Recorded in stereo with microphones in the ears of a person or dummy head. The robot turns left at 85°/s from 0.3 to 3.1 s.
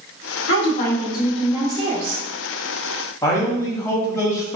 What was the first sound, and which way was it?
A woman speaking, 85° left.